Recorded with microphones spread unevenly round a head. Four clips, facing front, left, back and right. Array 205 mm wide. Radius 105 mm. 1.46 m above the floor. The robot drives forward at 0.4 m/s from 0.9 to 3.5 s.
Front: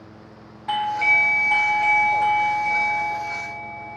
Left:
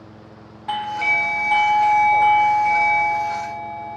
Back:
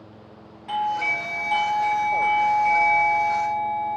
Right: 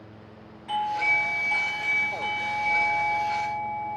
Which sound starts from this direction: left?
A doorbell, at 0.7 s.